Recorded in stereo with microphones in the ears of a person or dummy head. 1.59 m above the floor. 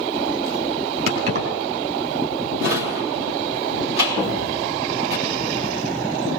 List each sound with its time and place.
1.1 s keys jangling: 60° right (ahead or behind), 3 m
2.6 s a drawer: 70° right (ahead or behind), 3 m
4.2 s an explosion: 50° right (ahead or behind), 7.5 m